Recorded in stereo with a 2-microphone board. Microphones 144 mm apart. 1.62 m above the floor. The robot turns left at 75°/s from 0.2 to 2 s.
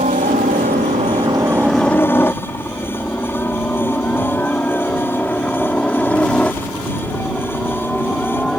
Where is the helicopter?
60° right (ahead or behind); by 8.6 s 5° left (ahead or behind).